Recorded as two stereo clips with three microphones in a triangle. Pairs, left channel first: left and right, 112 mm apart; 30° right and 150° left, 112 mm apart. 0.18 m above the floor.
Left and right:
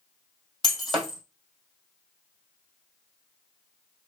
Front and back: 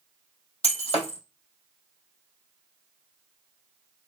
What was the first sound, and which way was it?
Breaking glass, straight ahead.